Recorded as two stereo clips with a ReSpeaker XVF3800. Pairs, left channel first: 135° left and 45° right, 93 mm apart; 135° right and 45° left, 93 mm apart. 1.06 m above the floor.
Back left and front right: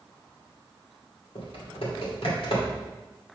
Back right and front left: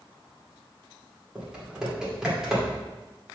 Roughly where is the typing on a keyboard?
Behind left.